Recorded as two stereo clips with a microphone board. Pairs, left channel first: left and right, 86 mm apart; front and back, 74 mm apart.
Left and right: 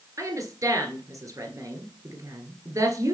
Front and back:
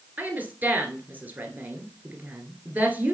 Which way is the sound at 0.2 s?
120° right.